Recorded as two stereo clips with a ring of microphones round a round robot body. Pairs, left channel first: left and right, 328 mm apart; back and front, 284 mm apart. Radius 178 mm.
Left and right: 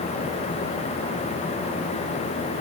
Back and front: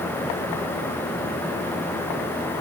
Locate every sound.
Only background noise.